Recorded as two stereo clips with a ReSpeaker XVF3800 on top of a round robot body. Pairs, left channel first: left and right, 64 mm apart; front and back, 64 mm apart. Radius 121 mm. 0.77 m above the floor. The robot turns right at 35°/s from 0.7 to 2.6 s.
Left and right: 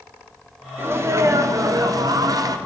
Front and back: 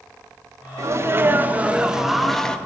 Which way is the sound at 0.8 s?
140° right.